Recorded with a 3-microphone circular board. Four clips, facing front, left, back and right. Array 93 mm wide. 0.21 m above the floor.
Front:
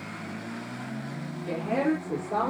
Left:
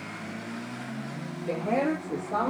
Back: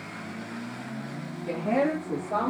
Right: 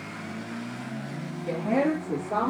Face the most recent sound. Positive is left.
turn(degrees=-105)